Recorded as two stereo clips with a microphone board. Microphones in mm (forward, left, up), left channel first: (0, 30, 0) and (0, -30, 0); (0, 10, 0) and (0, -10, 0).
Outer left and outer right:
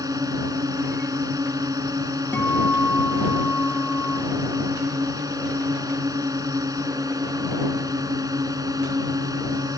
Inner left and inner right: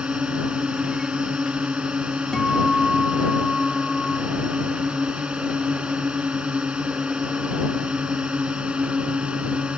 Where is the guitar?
30° left (ahead or behind).